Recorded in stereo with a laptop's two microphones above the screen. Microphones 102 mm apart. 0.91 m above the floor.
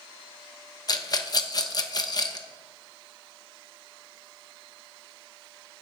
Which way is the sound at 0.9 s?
40° left (ahead or behind).